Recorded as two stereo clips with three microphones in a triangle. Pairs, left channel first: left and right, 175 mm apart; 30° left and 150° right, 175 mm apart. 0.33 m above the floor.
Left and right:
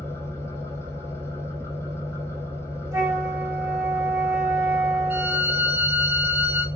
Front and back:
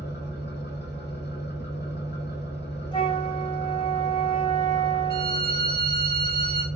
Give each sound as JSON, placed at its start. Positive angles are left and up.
{"t": 0.0, "sound": "an engine running", "azimuth_deg": 15, "distance_m": 1.0}
{"t": 2.9, "sound": "a flute", "azimuth_deg": -25, "distance_m": 0.9}
{"t": 5.1, "sound": "a violin", "azimuth_deg": -170, "distance_m": 0.7}